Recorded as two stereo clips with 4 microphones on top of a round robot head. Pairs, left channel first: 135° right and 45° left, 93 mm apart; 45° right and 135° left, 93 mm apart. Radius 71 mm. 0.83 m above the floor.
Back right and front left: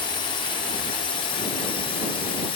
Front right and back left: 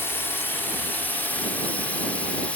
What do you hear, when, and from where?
0.0 s a drone: 110° right; by 2.6 s 120° right